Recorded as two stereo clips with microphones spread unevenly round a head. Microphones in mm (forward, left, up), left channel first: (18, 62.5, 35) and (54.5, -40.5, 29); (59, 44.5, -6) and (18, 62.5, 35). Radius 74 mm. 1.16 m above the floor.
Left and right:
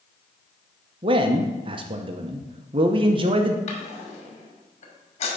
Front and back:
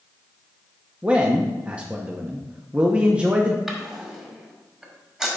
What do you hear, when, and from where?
1.0 s a man speaking: 100° right, 0.8 m
3.7 s a drawer: 90° left, 2.0 m